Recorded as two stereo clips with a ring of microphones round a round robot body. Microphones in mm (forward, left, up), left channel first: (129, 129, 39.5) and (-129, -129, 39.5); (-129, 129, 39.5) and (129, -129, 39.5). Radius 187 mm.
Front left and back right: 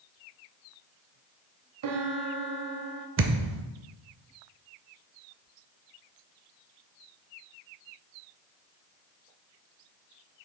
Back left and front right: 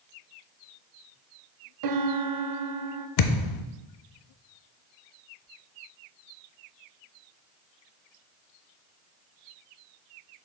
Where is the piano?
85° right, 0.6 m.